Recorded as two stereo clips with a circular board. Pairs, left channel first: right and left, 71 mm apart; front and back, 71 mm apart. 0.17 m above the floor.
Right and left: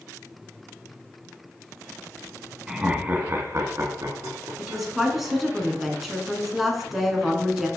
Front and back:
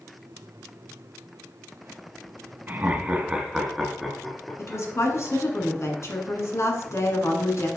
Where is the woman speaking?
5° left, 1.6 m.